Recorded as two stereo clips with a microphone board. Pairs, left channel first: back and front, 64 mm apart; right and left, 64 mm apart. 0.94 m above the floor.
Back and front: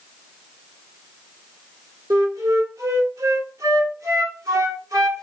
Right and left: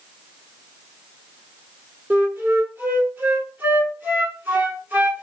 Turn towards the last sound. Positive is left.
turn(degrees=25)